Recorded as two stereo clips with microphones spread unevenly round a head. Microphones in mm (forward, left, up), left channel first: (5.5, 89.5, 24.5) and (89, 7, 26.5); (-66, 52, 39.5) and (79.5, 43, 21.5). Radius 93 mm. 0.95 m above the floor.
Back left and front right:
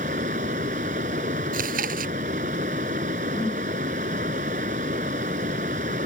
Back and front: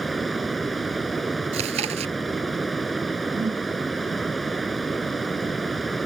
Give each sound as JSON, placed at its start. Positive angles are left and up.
{"t": 0.0, "sound": "running water", "azimuth_deg": -95}
{"t": 1.5, "sound": "chewing", "azimuth_deg": -65}
{"t": 3.4, "sound": "a whoosh", "azimuth_deg": 60}